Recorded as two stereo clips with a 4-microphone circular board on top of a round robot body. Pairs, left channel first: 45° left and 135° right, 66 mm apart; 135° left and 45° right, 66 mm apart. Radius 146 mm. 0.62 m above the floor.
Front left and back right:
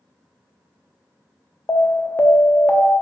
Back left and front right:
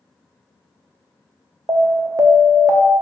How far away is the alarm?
About 0.9 m.